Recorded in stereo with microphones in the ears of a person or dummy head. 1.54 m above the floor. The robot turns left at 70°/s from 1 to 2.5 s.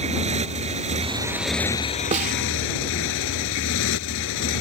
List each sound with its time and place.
0.0 s a motorcycle: 150° right; by 4.6 s 105° left
2.1 s a snare drum: 35° right (ahead or behind); by 2.4 s 45° right (ahead or behind)